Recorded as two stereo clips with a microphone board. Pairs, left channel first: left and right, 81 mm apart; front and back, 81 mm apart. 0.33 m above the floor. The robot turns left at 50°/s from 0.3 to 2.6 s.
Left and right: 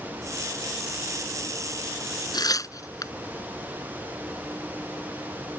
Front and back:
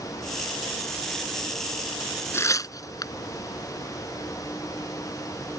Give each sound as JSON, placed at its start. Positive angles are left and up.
{"t": 2.3, "sound": "tearing paper", "azimuth_deg": 60}